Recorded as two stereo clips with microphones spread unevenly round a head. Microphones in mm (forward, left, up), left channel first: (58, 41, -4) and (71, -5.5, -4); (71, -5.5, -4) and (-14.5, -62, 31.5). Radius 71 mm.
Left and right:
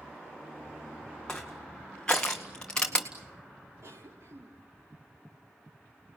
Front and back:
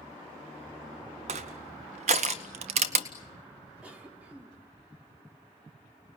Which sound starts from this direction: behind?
Crushing, at 1.3 s.